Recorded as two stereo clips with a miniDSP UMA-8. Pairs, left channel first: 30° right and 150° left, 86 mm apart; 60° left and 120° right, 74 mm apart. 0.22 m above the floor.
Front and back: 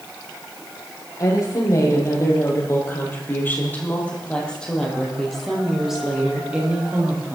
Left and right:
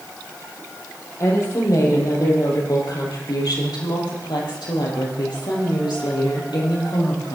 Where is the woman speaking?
15° left, 6.5 m; by 7.3 s 80° left, 6 m.